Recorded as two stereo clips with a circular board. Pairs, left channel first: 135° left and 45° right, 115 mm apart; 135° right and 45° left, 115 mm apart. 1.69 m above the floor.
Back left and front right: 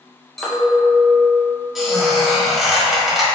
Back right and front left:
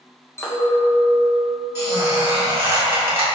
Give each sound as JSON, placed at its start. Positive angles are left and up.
{"t": 0.4, "sound": "a clink", "azimuth_deg": -140, "distance_m": 0.8}
{"t": 1.8, "sound": "a squeak", "azimuth_deg": 40, "distance_m": 1.2}